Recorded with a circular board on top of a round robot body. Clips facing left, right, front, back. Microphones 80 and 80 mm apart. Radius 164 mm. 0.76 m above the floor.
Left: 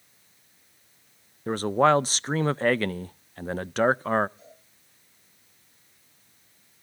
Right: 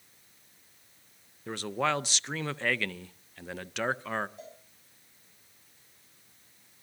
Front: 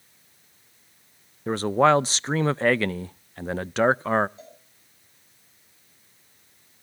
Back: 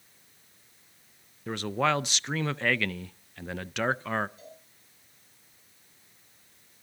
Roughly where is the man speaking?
Ahead left.